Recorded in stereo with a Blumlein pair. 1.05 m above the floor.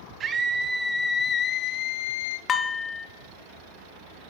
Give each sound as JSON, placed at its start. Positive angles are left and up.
{"t": 0.2, "sound": "a scream", "azimuth_deg": -30, "distance_m": 0.8}
{"t": 2.5, "sound": "dishes clattering", "azimuth_deg": 20, "distance_m": 1.3}